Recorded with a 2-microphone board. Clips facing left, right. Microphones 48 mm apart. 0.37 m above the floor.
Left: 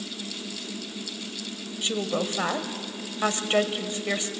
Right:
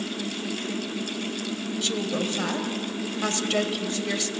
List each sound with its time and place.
1.8 s a woman speaking: 25° left (ahead or behind), 1.7 m